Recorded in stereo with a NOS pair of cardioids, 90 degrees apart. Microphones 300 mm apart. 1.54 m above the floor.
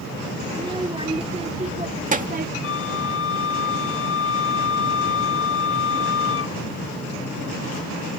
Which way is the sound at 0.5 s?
15° right.